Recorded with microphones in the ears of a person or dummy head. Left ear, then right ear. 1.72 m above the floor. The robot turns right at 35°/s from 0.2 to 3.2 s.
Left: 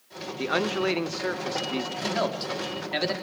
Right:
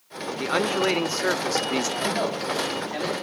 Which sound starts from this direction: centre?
A man speaking, at 2.0 s.